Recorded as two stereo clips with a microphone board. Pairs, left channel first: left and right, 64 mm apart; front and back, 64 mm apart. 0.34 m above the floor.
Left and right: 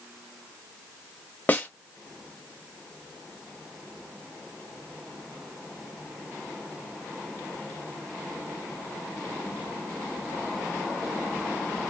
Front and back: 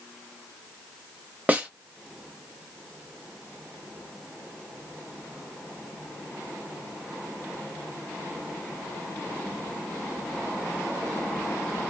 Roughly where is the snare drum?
Behind left.